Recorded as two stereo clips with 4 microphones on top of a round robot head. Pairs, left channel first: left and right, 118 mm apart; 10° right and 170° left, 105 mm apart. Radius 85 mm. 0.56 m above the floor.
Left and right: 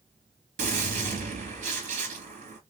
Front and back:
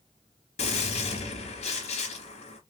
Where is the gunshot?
50° right, 3 m.